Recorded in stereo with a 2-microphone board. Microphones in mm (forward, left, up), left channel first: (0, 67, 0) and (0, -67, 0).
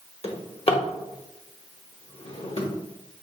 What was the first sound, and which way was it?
A drawer, 50° left (ahead or behind).